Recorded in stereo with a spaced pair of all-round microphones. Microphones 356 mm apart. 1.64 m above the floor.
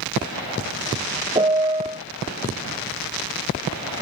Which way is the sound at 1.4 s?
15° right (ahead or behind).